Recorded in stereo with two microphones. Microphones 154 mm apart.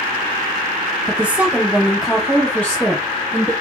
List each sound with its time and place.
1.1 s a woman speaking: 10° right (ahead or behind), 1.1 m; by 3.5 s 10° left (ahead or behind), 1.4 m